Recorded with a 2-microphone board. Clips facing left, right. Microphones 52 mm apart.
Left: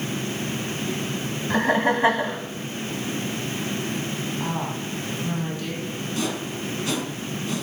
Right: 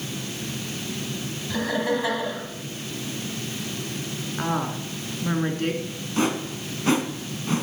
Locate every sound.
1.5 s laughter: 40° left (ahead or behind), 2.0 m
4.4 s a woman speaking: 50° right (ahead or behind), 3 m
6.2 s a whoosh: 35° right (ahead or behind), 1.8 m